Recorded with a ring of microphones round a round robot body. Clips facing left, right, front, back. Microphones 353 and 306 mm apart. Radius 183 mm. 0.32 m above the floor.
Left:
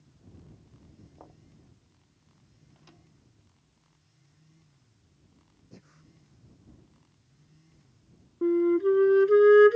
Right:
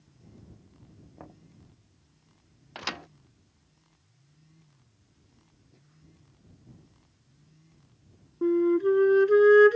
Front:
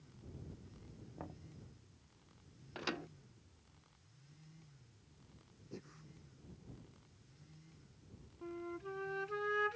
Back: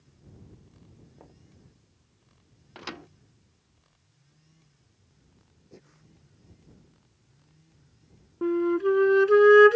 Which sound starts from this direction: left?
Breathing, at 5.7 s.